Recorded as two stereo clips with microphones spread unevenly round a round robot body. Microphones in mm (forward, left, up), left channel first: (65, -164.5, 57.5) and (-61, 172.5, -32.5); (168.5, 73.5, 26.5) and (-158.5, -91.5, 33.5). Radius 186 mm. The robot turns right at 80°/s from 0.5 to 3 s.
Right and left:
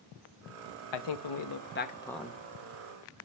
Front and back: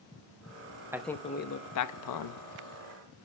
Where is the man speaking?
70° right, 0.9 m; by 2.4 s 50° left, 0.9 m.